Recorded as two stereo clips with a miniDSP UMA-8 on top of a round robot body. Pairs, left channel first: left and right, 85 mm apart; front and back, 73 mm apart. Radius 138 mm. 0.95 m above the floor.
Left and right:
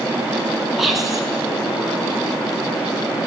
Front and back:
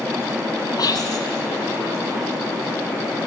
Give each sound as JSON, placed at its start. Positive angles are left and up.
{"t": 0.8, "sound": "whispering", "azimuth_deg": -5, "distance_m": 0.7}